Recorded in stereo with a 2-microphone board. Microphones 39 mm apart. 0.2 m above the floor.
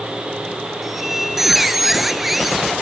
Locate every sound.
0.8 s a squeak: 5° right (ahead or behind), 2.0 m